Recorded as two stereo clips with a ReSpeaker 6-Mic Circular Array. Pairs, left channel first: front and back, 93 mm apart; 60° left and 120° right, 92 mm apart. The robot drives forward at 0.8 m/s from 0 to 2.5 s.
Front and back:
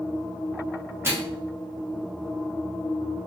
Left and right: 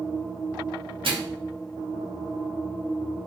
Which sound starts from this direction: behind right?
A microwave, at 1.0 s.